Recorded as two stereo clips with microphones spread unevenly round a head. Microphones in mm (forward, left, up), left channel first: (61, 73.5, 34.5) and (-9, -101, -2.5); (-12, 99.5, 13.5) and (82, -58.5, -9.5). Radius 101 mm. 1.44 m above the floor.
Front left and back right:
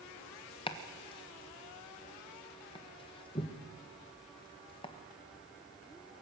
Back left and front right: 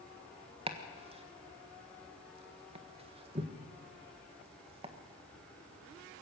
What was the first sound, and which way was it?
Chopping, 5° left.